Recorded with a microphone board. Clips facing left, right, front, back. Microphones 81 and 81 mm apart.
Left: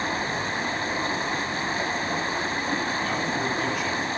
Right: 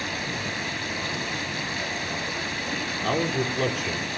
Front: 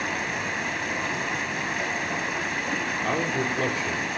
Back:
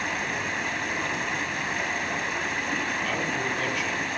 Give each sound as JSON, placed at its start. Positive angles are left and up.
{"t": 0.0, "sound": "running water", "azimuth_deg": 90, "distance_m": 1.5}
{"t": 3.0, "sound": "a man speaking", "azimuth_deg": -55, "distance_m": 6.0}